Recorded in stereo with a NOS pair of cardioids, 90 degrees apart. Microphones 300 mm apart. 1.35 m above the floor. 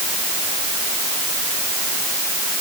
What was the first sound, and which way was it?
Only background noise.